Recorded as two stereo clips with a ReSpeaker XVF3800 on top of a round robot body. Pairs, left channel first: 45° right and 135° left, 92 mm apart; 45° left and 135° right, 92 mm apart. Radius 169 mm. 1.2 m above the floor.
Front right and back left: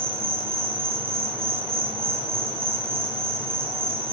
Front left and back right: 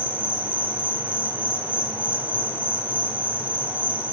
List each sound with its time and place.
0.0 s an insect: 150° left, 2 m